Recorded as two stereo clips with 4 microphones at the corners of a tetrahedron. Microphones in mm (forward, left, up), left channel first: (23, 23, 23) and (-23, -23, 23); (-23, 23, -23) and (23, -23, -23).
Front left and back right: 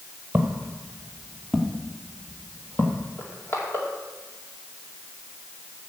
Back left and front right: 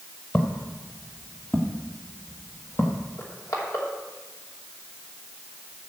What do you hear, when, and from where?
0.3 s footsteps: 170° left, 1.6 m; by 3.1 s 95° left, 2 m
3.2 s crushing: 95° left, 3 m